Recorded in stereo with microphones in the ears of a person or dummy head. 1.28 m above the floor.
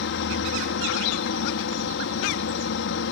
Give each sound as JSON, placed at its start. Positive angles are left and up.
{"t": 0.0, "sound": "a helicopter", "side_deg": 60}